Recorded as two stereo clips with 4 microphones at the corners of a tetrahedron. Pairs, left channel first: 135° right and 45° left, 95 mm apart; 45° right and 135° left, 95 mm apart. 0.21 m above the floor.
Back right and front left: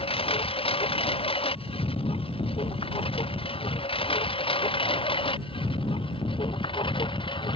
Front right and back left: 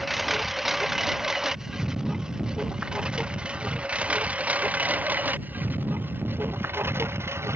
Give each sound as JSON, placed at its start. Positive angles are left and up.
{"t": 0.0, "sound": "a lawn mower", "azimuth_deg": -135}